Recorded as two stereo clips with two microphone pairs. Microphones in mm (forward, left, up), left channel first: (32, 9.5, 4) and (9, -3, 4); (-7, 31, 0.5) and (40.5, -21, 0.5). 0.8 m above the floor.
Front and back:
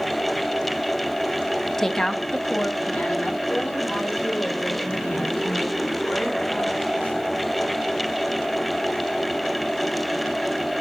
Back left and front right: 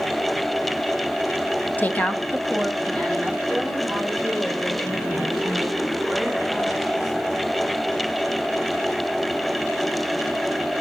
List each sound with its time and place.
1.8 s a woman speaking: 95° left, 0.7 m; by 7.3 s 45° left, 5.5 m